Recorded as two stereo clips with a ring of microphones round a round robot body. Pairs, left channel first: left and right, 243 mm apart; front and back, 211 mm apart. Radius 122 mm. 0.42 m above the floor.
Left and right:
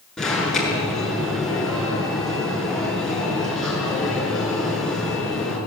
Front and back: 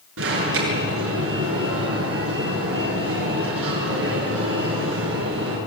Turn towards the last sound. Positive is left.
turn(degrees=180)